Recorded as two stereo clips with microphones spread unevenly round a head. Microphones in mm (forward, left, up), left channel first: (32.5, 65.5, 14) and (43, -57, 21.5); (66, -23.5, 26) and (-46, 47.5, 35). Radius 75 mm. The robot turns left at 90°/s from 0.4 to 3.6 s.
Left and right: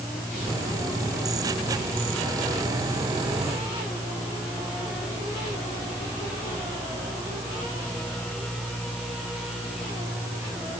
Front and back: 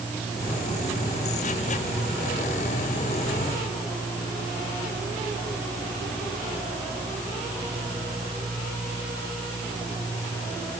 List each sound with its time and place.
Only background noise.